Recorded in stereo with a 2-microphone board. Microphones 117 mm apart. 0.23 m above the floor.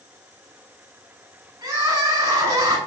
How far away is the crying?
About 1.0 m.